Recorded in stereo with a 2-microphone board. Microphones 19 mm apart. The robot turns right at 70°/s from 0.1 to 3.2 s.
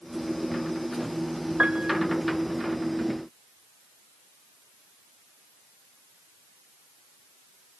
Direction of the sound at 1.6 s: 60° right (ahead or behind).